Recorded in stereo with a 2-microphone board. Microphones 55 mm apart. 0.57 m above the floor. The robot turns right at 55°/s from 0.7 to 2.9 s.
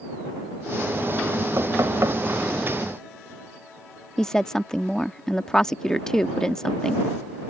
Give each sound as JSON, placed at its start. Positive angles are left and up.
{"t": 1.6, "sound": "knocking", "azimuth_deg": -90}
{"t": 4.2, "sound": "a woman speaking", "side_deg": 10}